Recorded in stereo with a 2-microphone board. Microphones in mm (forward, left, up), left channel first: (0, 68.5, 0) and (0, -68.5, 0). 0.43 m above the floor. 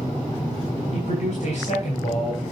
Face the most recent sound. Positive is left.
turn(degrees=55)  # may be behind; listen again after turning